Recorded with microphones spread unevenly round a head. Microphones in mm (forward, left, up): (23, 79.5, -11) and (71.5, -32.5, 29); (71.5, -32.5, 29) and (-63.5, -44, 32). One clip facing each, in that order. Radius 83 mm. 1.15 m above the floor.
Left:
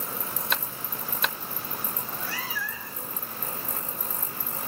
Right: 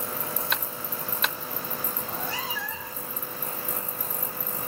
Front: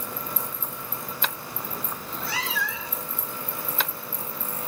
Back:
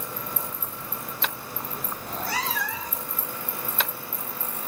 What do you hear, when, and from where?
2.0 s a cat meowing: 130° right, 1.1 m